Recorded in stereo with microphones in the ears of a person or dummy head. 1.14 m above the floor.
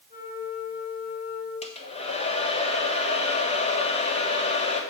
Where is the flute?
40° left (ahead or behind), 4.5 m.